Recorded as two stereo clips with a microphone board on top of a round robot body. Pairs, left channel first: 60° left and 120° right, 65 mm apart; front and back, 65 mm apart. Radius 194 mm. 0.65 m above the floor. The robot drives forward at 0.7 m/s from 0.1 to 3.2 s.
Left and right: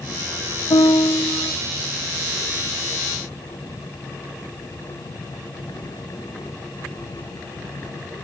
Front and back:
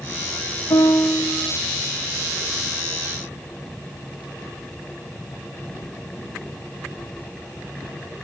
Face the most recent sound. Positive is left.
turn(degrees=165)